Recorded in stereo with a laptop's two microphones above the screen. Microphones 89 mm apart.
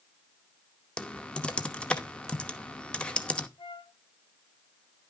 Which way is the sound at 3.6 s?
60° left (ahead or behind).